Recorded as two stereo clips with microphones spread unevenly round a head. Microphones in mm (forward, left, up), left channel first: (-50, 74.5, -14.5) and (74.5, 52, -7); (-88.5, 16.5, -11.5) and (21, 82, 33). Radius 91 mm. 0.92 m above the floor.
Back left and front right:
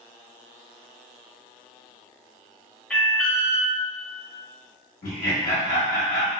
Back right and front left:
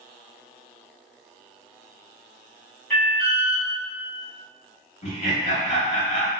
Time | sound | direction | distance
2.9 | an alarm | 120° right | 1.4 m
5.0 | laughter | 175° right | 1.2 m